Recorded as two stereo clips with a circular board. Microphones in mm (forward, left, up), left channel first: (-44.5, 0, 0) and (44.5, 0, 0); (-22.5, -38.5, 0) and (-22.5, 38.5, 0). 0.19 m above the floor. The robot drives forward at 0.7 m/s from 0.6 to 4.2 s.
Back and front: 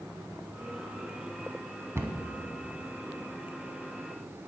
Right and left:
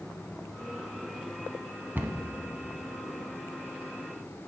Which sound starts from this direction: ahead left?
A cupboard door, at 1.9 s.